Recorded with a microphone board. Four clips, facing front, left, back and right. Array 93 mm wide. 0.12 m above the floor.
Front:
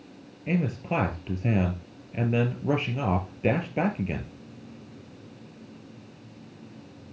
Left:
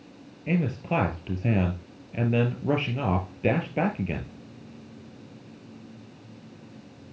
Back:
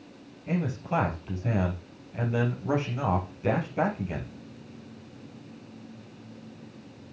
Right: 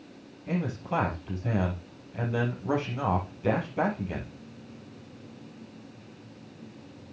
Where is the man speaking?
55° left, 3 m.